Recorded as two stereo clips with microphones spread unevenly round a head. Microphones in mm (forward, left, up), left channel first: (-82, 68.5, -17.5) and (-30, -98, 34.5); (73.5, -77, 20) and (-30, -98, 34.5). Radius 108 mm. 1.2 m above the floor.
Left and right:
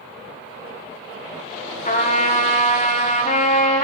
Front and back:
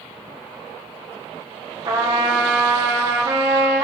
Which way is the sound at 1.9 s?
130° left.